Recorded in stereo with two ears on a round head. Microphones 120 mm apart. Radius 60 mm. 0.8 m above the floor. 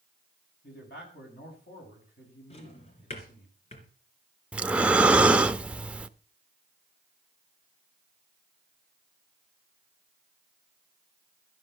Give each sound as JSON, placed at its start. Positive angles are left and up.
{"t": 0.6, "sound": "a man speaking", "side_deg": 75, "distance_m": 6.5}
{"t": 2.5, "sound": "a drawer", "side_deg": 45, "distance_m": 3.5}
{"t": 4.5, "sound": "breathing", "side_deg": -10, "distance_m": 0.7}